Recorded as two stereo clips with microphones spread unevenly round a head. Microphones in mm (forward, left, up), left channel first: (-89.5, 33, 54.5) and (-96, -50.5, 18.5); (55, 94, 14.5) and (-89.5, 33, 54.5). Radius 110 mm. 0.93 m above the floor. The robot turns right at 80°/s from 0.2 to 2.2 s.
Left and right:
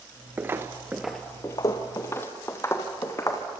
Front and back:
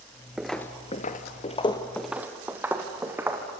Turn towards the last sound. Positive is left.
turn(degrees=130)